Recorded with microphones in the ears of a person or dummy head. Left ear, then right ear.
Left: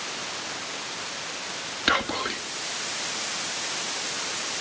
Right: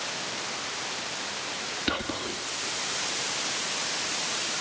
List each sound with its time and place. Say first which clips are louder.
1.9 s whispering: left 9 dB; 45° left (ahead or behind), 1.7 m